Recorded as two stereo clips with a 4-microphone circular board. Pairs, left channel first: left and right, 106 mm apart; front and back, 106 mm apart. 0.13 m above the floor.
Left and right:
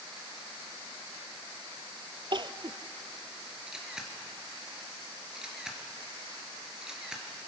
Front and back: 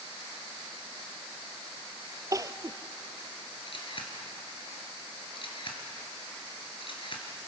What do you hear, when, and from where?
2.3 s crying: 125° right, 0.6 m
3.7 s a camera shutter: 5° right, 2.5 m